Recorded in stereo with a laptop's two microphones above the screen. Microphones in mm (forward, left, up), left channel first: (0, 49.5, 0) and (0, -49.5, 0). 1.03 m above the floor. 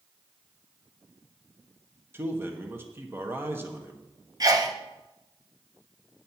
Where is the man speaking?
25° right (ahead or behind), 1.2 m.